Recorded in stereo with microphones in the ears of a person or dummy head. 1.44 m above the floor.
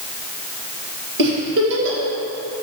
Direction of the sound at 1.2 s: 65° right (ahead or behind).